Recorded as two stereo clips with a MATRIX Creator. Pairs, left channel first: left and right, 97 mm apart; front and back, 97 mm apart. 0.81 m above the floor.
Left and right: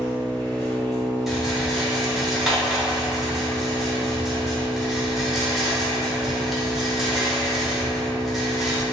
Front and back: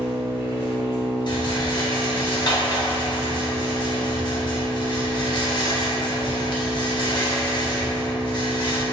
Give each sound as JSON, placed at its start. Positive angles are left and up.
{"t": 0.0, "sound": "an engine running", "azimuth_deg": 165, "distance_m": 1.4}
{"t": 1.3, "sound": "a rattle", "azimuth_deg": -5, "distance_m": 0.6}